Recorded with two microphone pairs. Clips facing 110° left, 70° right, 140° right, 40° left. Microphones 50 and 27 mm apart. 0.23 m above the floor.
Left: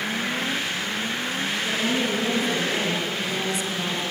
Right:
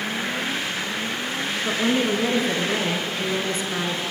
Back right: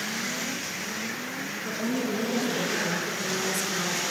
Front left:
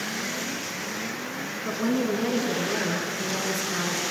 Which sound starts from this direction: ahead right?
A woman speaking, at 1.6 s.